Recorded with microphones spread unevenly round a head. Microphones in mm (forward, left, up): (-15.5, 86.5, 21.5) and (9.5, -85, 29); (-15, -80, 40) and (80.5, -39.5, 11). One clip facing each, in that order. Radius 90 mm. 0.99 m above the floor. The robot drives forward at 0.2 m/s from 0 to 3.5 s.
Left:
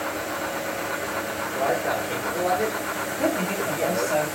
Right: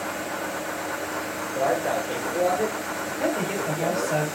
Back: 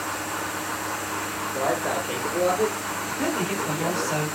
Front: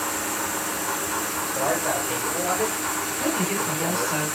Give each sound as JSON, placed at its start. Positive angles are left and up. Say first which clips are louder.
{"t": 1.5, "sound": "a man speaking", "louder": "right 1 dB, even", "azimuth_deg": 175, "distance_m": 1.9}
{"t": 3.1, "sound": "a woman speaking", "louder": "left 1 dB, back 1 dB", "azimuth_deg": -170, "distance_m": 2.5}